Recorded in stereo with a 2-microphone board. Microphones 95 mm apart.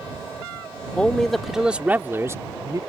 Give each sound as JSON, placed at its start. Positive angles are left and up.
{"t": 1.0, "sound": "a man speaking", "side_deg": 10}